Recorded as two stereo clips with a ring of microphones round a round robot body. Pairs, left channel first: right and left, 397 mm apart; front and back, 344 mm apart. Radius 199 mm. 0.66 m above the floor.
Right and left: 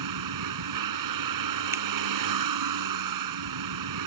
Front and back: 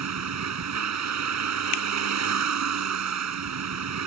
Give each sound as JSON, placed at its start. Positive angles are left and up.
{"t": 0.0, "sound": "a vehicle", "azimuth_deg": 135}
{"t": 1.7, "sound": "a finger snap", "azimuth_deg": 5}